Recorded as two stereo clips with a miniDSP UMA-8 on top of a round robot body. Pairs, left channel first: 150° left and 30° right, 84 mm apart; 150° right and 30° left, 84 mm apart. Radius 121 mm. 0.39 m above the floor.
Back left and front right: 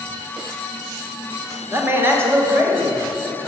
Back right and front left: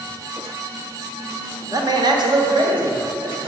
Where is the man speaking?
20° left, 1.4 m; by 3.5 s 35° left, 3 m.